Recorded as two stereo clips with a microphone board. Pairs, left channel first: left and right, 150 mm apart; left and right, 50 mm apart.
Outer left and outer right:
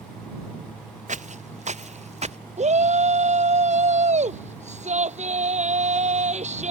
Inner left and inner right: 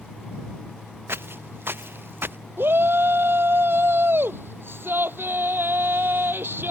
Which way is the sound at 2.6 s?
55° right (ahead or behind).